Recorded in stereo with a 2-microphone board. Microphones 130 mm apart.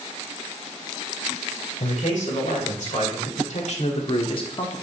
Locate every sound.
1.8 s a man speaking: 75° left (ahead or behind), 2.5 m; by 4.8 s 30° left (ahead or behind), 0.9 m